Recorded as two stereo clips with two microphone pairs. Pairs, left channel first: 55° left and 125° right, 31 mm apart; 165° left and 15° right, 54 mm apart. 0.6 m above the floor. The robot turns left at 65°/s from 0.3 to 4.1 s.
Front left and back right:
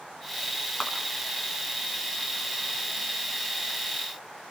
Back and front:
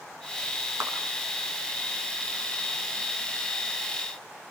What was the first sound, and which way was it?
A clap, 10° left.